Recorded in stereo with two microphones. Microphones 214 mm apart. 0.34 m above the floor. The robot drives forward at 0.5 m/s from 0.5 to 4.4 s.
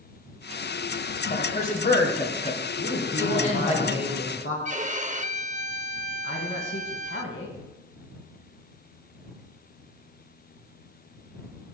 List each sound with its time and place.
1.3 s a man speaking: 40° left (ahead or behind), 1.8 m; by 3.8 s 30° left (ahead or behind), 2.5 m
2.8 s a man speaking: 70° left (ahead or behind), 3.5 m
4.7 s a violin: 35° right (ahead or behind), 0.5 m
6.2 s a man speaking: 65° left (ahead or behind), 3 m